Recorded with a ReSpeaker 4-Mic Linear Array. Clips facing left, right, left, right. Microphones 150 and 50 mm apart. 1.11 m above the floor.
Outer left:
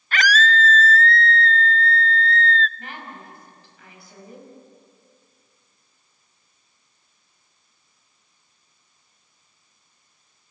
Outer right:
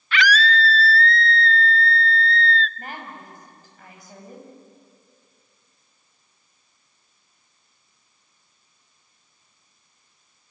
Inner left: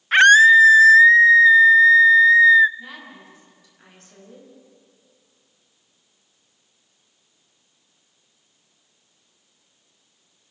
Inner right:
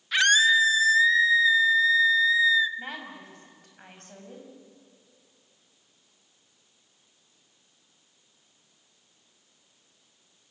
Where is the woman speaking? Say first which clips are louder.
Outer right 1 dB, inner right 1 dB; 40° right (ahead or behind), 6 m.